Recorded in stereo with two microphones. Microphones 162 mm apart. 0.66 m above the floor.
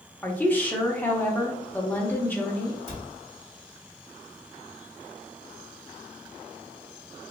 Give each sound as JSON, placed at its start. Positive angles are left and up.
{"t": 0.2, "sound": "a woman speaking", "side_deg": 10, "distance_m": 0.8}
{"t": 2.9, "sound": "a cupboard door", "side_deg": 40, "distance_m": 1.9}